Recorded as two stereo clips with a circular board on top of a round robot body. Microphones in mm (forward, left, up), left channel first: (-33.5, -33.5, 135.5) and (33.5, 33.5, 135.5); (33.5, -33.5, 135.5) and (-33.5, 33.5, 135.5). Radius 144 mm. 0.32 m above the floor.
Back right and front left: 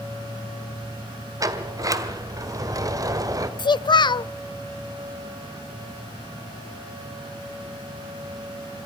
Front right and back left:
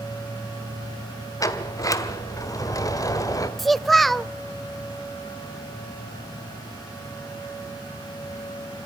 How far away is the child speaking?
About 0.7 m.